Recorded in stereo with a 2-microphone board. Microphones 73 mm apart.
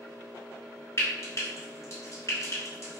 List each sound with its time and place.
1.0 s frying: 40° left (ahead or behind), 1.4 m